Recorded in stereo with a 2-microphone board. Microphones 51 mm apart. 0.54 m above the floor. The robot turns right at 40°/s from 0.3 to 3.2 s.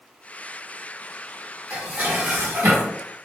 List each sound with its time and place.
1.7 s dishes clattering: 155° right, 0.9 m; by 3.0 s 105° right, 0.9 m